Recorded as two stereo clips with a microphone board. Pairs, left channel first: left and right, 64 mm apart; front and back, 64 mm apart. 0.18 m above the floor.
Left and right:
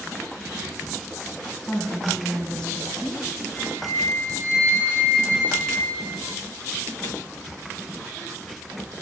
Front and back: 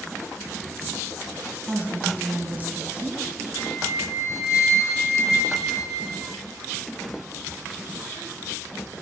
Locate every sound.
1.7 s a woman speaking: 155° left, 1.6 m
3.5 s a flute: 30° left, 3.5 m